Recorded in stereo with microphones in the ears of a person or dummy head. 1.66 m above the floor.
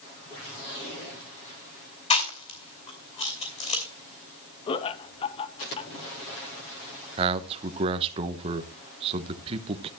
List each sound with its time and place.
2.1 s chewing: 30° left (ahead or behind), 3 m
4.7 s laughter: 30° left (ahead or behind), 1.0 m
7.2 s a man speaking: 25° right (ahead or behind), 1.1 m